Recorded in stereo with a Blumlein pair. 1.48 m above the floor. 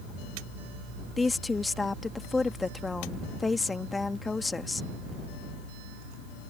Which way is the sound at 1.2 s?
10° left.